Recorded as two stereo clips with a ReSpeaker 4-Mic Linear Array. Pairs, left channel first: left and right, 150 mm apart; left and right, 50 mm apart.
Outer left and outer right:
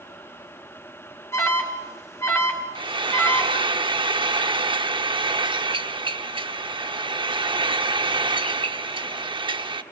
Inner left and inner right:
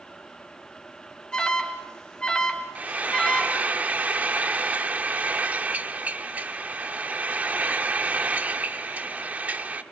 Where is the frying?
35° right (ahead or behind), 0.9 m.